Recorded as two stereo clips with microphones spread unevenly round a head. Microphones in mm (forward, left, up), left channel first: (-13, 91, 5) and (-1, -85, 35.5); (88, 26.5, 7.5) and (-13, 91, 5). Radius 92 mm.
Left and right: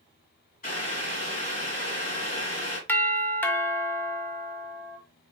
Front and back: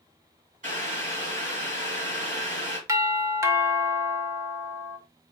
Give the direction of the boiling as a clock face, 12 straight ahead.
7 o'clock.